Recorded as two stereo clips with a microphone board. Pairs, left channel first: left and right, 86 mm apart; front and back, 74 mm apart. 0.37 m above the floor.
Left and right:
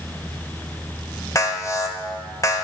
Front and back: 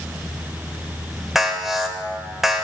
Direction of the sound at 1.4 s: 95° left.